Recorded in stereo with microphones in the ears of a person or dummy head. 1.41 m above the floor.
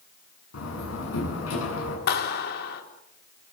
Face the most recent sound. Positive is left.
turn(degrees=60)  # may be behind; listen again after turning